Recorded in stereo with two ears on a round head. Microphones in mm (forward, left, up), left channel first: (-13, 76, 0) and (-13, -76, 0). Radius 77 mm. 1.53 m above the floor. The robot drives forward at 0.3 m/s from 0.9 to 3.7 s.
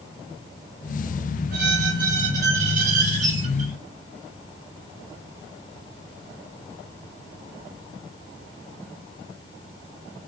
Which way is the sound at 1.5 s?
55° right (ahead or behind).